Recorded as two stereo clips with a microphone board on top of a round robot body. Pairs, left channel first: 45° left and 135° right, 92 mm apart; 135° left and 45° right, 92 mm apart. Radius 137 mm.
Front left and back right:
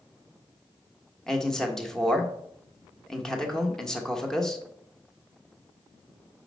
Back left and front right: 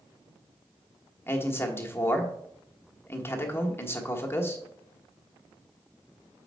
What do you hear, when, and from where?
1.3 s a man speaking: 120° left, 1.3 m